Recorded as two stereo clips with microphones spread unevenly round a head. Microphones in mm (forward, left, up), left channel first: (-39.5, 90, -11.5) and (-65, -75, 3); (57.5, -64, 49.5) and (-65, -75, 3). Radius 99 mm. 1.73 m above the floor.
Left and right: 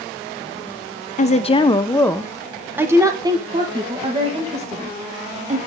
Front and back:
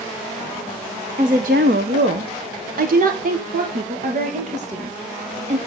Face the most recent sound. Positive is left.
turn(degrees=-145)